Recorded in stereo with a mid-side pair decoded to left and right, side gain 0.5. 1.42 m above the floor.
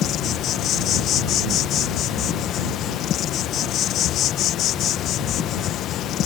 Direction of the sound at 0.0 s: 65° left.